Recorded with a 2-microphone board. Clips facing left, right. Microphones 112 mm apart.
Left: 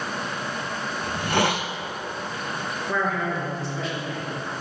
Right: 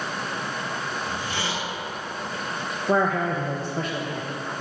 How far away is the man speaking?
About 0.9 m.